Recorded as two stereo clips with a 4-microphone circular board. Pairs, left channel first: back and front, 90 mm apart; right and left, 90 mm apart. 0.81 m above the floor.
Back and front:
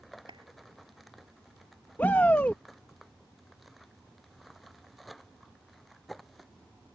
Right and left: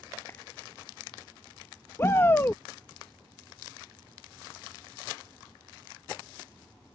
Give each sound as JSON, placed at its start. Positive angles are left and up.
{"t": 0.3, "sound": "a clap", "azimuth_deg": -25}
{"t": 2.0, "sound": "a shout", "azimuth_deg": -125}